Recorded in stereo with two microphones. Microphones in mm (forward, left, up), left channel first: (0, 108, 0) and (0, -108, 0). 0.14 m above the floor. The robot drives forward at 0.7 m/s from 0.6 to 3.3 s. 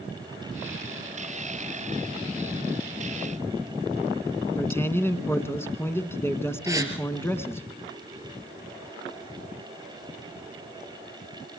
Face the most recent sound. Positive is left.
turn(degrees=-15)  # may be behind; listen again after turning